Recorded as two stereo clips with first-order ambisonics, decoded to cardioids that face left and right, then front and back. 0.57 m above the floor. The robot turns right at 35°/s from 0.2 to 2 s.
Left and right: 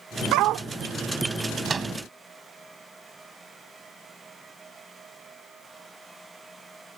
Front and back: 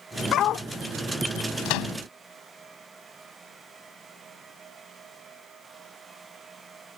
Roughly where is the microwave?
Ahead right.